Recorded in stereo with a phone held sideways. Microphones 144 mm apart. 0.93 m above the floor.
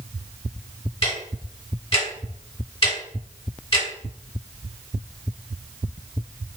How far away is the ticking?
About 1.1 m.